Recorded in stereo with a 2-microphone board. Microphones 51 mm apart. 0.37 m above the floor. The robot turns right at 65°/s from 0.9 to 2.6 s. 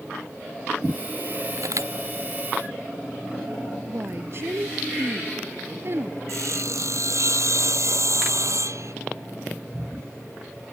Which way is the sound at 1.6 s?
90° right.